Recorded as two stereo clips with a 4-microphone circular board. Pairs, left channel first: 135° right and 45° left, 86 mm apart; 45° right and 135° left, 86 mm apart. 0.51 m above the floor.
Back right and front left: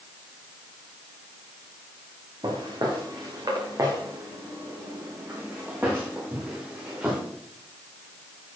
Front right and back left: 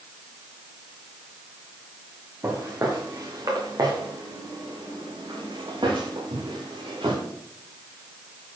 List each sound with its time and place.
2.4 s footsteps: 75° left, 3 m; by 7.2 s 120° left, 4.5 m